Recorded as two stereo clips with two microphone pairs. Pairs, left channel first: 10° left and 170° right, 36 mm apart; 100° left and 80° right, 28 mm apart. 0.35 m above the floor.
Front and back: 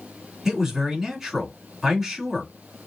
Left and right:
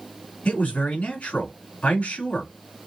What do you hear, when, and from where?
0.5 s a man speaking: 105° left, 2 m